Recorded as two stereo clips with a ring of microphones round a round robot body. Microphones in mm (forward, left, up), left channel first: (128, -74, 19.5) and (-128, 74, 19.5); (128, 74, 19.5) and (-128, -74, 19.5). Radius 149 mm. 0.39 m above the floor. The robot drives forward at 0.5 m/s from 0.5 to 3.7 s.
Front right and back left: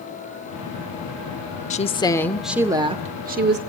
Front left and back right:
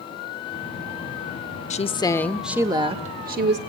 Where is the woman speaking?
Straight ahead, 0.8 m; by 3.6 s straight behind, 0.9 m.